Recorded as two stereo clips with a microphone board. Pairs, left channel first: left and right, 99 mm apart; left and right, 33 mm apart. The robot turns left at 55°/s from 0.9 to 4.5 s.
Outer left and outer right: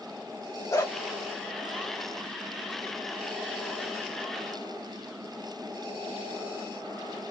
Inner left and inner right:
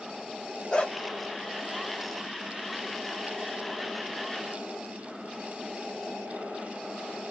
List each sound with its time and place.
0.7 s a dog barking: 30° left (ahead or behind), 1.9 m; by 0.9 s 35° left (ahead or behind), 1.9 m